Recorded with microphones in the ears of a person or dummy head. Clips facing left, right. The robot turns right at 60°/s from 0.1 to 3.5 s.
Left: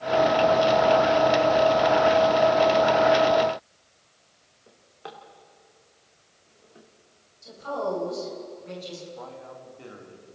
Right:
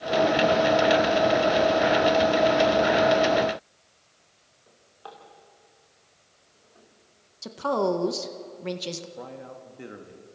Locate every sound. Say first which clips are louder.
4.7 s a drawer: left 3 dB; 30° left (ahead or behind), 2.5 m
7.4 s a woman speaking: right 5 dB; 90° right, 1.6 m
9.2 s a man speaking: right 1 dB; 20° right (ahead or behind), 2 m